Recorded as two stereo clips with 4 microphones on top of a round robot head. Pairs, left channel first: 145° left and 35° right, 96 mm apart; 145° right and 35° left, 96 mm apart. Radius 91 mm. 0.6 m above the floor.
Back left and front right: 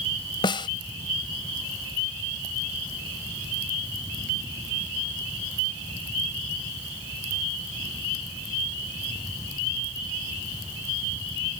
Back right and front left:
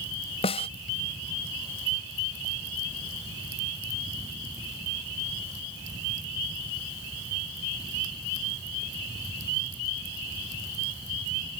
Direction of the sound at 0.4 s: 170° right.